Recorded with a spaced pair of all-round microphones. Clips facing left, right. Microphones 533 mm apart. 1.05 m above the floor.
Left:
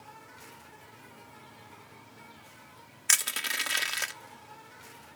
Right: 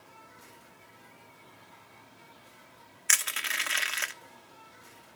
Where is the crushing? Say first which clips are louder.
Left 2 dB; 60° left (ahead or behind), 0.7 m.